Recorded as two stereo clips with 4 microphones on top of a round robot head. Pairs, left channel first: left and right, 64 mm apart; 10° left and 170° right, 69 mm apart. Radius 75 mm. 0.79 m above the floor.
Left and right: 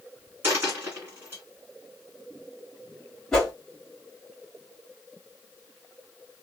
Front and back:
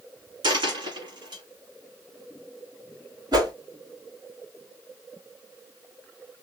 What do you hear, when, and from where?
0.4 s a dropped coin: 155° right, 1.6 m
3.3 s a whoosh: 175° left, 1.6 m